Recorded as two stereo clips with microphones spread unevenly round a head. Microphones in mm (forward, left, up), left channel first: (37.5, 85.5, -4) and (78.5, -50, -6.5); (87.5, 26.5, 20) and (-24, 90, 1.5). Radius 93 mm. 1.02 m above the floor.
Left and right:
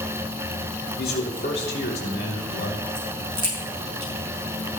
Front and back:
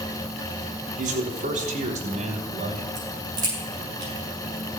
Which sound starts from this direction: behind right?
A crack, at 3.0 s.